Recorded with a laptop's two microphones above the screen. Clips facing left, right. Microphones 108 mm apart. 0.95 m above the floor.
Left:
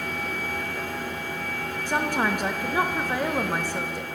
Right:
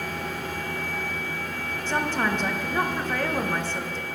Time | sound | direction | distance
1.9 | a woman speaking | 10° left (ahead or behind) | 0.6 m